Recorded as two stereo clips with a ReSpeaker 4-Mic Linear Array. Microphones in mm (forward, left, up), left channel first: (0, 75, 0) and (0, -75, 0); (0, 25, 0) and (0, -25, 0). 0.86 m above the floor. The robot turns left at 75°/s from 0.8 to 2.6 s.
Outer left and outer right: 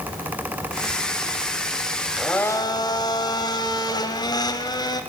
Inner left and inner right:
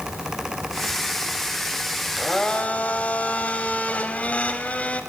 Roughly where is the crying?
No crying in this recording.